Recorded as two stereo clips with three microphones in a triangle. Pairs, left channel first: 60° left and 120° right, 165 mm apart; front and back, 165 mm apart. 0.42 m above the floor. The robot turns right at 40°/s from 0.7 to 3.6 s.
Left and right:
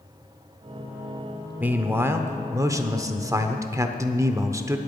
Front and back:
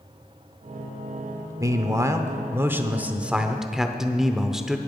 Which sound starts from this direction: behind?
A man speaking, at 1.6 s.